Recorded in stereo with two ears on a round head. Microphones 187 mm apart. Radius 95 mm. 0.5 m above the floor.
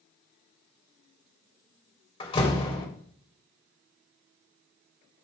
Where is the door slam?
25° left (ahead or behind), 1.8 m.